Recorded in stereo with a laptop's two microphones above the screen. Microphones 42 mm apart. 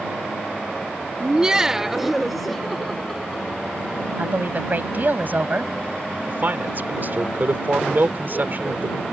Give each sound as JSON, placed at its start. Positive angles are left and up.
{"t": 1.2, "sound": "laughter", "side_deg": -20}
{"t": 4.2, "sound": "a woman speaking", "side_deg": -45}
{"t": 6.3, "sound": "a man speaking", "side_deg": -45}